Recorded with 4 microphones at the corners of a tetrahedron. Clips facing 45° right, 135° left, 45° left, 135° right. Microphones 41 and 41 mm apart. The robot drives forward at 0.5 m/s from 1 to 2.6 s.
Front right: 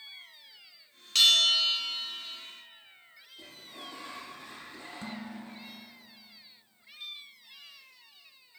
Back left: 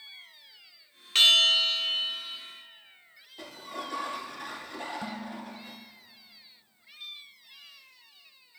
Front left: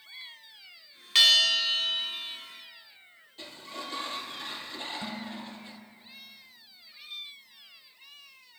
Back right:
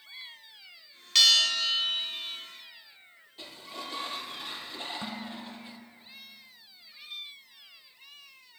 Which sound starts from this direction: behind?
Dishes clattering, at 5.0 s.